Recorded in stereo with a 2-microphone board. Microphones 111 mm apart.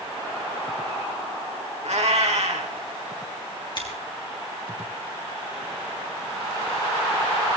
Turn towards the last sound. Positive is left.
turn(degrees=45)  # may be behind; listen again after turning